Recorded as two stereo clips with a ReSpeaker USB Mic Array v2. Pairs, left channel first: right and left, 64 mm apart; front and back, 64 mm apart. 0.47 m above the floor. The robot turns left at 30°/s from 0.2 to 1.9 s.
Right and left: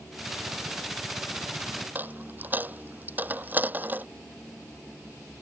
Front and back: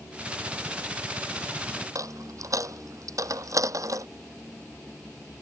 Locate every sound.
1.9 s a dropped coin: 150° left